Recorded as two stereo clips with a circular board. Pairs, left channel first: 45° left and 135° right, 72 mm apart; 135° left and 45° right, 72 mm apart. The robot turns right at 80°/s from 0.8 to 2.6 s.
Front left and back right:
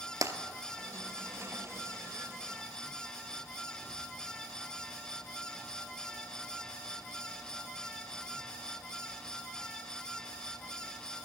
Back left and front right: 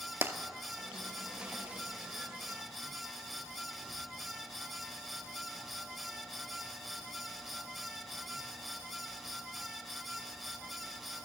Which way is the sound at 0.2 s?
105° right.